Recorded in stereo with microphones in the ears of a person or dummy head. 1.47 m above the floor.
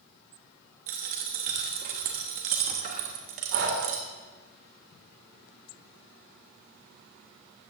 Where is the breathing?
75° right (ahead or behind), 3 m.